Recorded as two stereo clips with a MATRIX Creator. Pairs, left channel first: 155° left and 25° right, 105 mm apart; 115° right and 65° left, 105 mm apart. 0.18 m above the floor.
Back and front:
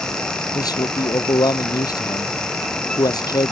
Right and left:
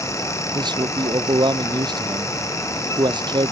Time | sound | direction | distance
0.6 | a man speaking | 110° left | ?